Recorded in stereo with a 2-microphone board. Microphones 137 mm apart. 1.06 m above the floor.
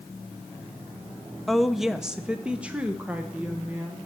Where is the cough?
No cough in this recording.